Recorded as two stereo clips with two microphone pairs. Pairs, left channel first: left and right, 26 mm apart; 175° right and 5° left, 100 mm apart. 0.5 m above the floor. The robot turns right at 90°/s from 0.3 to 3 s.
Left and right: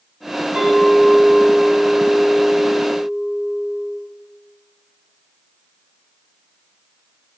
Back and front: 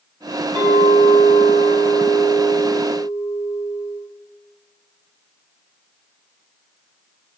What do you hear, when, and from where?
0.6 s a clink: 100° right, 1.4 m; by 4.0 s 120° left, 1.4 m